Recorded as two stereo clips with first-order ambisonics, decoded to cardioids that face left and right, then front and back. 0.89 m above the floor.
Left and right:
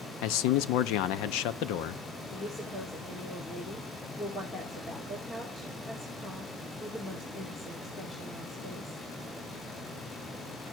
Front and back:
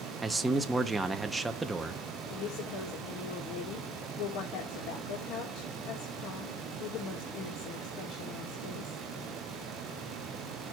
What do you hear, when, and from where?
0.2 s a man speaking: 100° left, 0.7 m
2.3 s a woman speaking: 15° left, 2 m